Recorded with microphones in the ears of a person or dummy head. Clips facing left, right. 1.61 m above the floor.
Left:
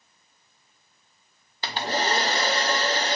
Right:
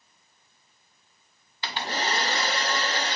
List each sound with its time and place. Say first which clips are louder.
1.6 s a hair dryer: left 4 dB; 35° left (ahead or behind), 0.7 m